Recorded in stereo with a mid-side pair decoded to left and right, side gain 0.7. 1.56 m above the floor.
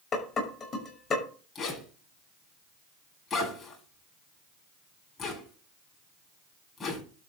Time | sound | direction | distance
0.1 | dishes clattering | 30° left | 6 m
1.6 | a zipper | 25° left | 8.5 m